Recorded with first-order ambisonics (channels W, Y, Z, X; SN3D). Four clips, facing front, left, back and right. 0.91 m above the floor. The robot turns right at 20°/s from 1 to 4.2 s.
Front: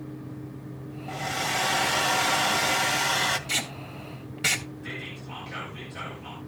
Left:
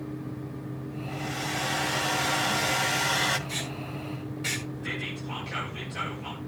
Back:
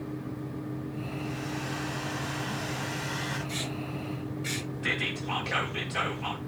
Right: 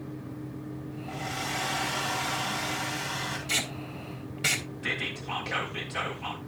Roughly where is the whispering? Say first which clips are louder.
Right 2 dB, back 7 dB; behind right.